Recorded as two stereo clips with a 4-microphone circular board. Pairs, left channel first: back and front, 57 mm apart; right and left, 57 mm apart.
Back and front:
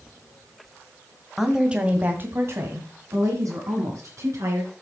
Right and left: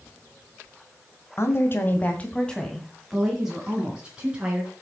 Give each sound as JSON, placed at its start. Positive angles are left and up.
{"t": 1.4, "sound": "a woman speaking", "azimuth_deg": -85, "distance_m": 2.0}